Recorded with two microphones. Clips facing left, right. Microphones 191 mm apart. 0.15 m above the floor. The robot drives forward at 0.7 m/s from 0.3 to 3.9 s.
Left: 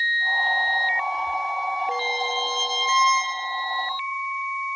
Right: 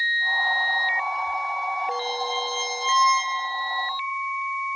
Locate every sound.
1.9 s a violin: 20° left (ahead or behind), 1.7 m; by 3.4 s 30° left (ahead or behind), 1.1 m